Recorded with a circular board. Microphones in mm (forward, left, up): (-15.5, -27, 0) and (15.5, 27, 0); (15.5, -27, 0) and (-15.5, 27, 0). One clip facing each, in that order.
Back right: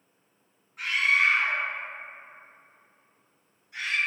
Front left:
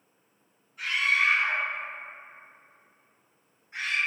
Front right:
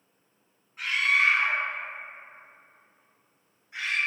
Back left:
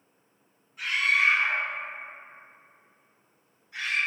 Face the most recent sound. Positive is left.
turn(degrees=15)